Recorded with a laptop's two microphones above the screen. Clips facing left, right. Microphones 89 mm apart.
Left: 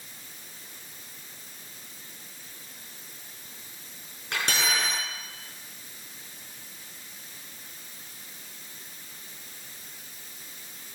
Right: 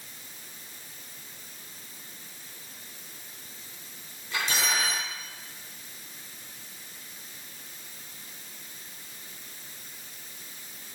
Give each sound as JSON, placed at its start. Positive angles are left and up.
{"t": 4.3, "sound": "cutlery clinking", "side_deg": 85, "distance_m": 8.0}